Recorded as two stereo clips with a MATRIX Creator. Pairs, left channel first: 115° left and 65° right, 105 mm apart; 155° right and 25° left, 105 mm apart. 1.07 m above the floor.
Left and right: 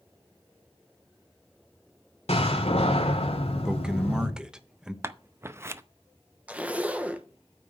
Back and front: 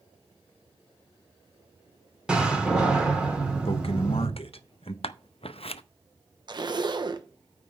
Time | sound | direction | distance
2.3 | a door slam | 105° left | 2.5 m
3.6 | a man speaking | 150° right | 1.1 m
5.0 | scissors | 135° right | 0.6 m
6.5 | a zipper | 5° left | 1.0 m